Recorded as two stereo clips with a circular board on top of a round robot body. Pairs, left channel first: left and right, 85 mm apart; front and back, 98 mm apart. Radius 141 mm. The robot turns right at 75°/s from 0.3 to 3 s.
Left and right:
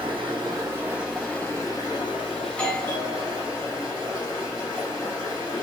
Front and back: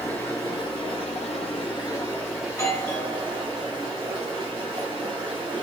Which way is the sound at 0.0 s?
65° right.